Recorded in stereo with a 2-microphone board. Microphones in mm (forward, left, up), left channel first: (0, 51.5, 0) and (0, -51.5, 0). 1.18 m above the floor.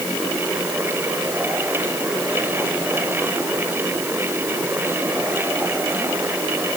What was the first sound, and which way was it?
Only background noise.